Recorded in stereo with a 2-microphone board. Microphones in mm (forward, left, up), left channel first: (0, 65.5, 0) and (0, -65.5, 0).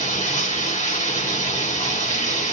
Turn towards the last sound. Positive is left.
turn(degrees=65)  # may be behind; listen again after turning